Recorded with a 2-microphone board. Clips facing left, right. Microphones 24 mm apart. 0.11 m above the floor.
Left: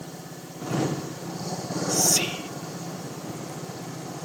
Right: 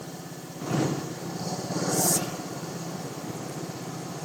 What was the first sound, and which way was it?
Whispering, 60° left (ahead or behind).